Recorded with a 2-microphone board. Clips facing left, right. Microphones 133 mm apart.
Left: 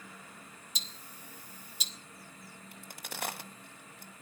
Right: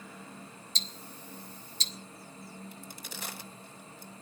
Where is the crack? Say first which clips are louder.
Right 1 dB; 60° left (ahead or behind), 1.8 m.